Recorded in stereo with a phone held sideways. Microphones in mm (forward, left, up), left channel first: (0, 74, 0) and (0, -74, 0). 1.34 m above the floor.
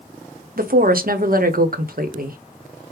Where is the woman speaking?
70° right (ahead or behind), 0.7 m.